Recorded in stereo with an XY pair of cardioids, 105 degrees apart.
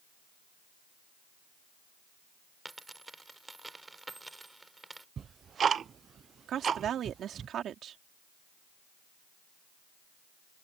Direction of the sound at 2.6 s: 15° right.